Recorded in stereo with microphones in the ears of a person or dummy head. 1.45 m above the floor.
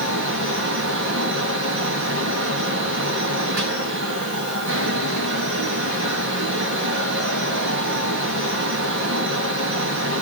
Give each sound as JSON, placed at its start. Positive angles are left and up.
{"t": 0.0, "sound": "a fan", "side_deg": -70, "distance_m": 2.0}